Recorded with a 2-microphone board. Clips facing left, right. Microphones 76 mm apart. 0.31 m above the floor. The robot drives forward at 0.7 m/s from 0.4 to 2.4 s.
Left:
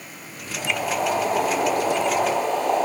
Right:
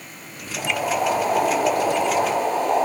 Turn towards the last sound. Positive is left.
turn(degrees=-10)  # may be behind; listen again after turning